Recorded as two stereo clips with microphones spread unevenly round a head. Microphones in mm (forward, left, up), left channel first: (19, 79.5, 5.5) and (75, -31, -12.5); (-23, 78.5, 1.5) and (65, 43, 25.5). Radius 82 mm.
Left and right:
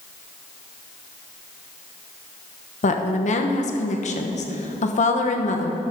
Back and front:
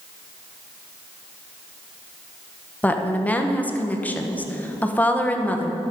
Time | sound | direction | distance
2.8 | a woman speaking | 90° left | 1.2 m